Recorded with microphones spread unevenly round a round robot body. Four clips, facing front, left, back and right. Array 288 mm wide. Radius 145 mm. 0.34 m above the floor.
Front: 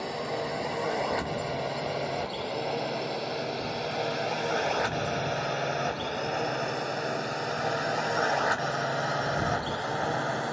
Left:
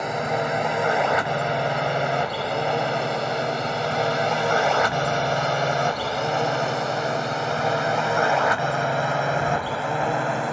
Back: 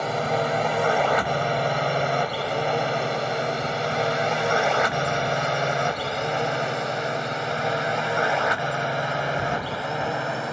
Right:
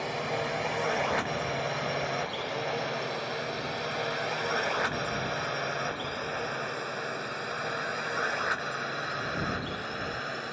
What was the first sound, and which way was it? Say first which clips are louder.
A drone: left 7 dB, back 8 dB; 145° left.